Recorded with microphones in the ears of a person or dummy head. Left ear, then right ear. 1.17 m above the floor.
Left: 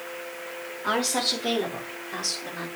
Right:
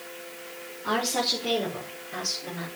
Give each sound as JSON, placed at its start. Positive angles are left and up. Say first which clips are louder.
{"t": 0.8, "sound": "a woman speaking", "louder": "left 1 dB", "side_deg": 50, "distance_m": 3.0}